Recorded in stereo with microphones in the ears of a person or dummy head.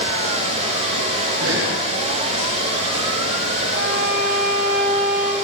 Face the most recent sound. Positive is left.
turn(degrees=-55)  # may be behind; listen again after turning